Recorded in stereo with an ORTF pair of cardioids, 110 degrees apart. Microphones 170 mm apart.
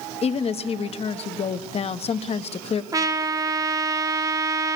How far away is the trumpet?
About 1.4 m.